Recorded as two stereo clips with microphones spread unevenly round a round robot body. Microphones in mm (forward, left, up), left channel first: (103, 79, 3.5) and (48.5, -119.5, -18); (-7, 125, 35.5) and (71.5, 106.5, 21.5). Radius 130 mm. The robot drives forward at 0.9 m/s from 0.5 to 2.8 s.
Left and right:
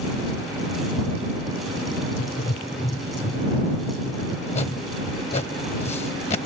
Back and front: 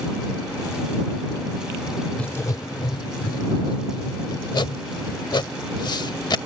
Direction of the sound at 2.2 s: 90° left.